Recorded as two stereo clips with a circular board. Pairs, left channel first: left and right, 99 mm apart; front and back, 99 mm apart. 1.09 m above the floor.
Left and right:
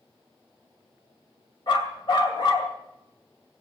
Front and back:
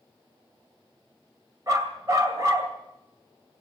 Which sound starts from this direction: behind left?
A dog barking, at 1.7 s.